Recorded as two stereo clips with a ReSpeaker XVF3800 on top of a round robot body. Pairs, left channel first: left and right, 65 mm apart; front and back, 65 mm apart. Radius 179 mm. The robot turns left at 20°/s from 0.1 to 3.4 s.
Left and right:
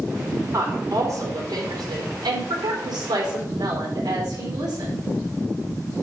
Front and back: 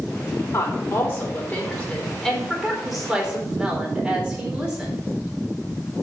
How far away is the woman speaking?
About 4 m.